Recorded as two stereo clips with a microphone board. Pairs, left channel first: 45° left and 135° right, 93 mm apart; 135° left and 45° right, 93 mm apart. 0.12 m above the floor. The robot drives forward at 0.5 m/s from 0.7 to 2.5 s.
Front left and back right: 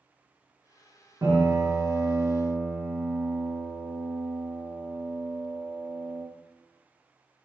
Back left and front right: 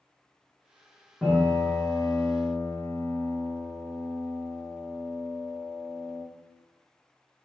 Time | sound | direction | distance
1.2 | a piano | 145° right | 1.3 m